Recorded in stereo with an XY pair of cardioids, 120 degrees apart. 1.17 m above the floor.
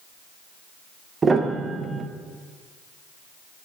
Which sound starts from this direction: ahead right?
A piano, at 1.2 s.